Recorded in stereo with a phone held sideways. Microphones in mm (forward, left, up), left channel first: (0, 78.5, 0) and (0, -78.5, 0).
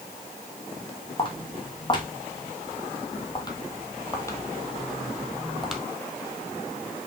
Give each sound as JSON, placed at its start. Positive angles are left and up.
{"t": 1.2, "sound": "footsteps", "side_deg": 30, "distance_m": 3.0}